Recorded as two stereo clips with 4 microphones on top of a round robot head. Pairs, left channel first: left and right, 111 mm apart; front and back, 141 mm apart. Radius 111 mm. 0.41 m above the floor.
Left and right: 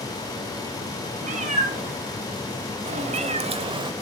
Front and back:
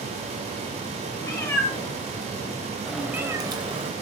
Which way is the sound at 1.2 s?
70° right.